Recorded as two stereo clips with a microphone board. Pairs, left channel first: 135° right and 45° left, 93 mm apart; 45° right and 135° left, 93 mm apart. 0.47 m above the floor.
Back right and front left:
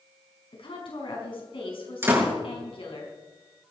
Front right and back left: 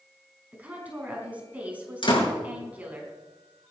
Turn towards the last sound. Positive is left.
turn(degrees=-20)